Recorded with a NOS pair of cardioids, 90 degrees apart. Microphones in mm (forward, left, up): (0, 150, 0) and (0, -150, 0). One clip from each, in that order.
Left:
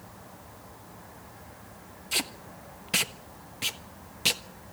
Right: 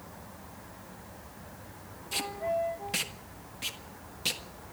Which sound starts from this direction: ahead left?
Tape being pulled, at 2.1 s.